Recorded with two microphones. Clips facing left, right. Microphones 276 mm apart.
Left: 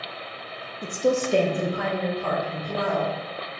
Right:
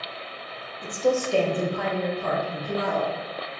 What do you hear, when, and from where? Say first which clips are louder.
0.8 s a woman speaking: even; 35° left (ahead or behind), 0.6 m; by 3.1 s 15° right (ahead or behind), 1.5 m